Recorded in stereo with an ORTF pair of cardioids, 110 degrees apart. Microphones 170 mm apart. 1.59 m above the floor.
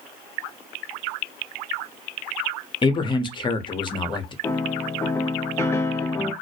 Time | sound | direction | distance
2.8 | a man speaking | 30° left | 0.7 m
4.4 | a piano | 15° left | 0.5 m